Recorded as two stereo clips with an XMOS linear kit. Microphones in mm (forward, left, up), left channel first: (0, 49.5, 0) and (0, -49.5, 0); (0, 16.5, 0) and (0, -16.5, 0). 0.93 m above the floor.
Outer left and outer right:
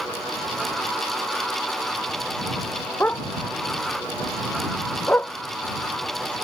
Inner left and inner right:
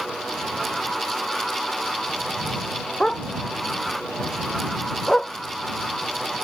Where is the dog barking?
15° left (ahead or behind).